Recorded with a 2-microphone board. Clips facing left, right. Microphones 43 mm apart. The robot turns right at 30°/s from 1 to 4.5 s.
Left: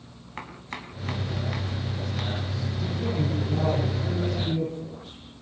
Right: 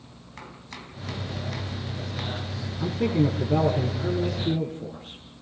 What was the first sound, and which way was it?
Chopping, 35° left (ahead or behind).